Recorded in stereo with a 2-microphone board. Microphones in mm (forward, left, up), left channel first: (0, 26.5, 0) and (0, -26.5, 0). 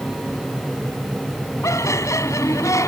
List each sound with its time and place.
1.6 s laughter: 80° left